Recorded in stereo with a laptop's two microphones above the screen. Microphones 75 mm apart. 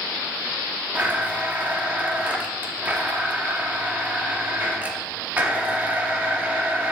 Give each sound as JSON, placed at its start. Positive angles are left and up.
{"t": 0.9, "sound": "a blender", "side_deg": -20, "distance_m": 1.7}